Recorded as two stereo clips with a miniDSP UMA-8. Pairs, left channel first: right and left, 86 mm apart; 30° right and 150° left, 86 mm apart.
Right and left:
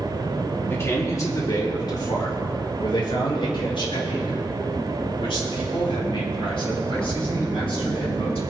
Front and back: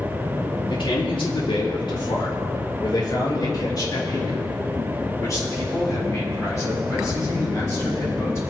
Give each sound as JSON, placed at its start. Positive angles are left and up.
{"t": 0.7, "sound": "a man speaking", "azimuth_deg": -30, "distance_m": 2.5}